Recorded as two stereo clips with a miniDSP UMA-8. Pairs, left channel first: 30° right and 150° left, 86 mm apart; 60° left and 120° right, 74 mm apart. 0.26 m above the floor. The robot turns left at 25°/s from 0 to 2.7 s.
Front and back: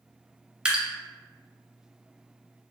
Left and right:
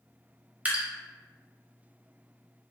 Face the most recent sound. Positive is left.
turn(degrees=160)